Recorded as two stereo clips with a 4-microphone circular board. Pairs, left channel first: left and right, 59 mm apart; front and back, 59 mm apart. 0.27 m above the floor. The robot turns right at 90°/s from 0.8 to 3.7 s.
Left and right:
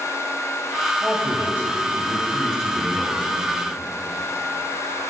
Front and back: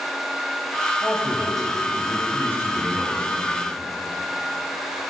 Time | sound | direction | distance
1.0 | a man speaking | 145° right | 1.6 m